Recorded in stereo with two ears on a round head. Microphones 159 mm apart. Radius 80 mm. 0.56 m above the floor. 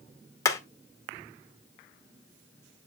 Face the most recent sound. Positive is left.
turn(degrees=20)  # may be behind; listen again after turning